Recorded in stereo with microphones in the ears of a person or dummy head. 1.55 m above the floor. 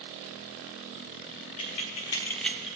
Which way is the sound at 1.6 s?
35° left (ahead or behind).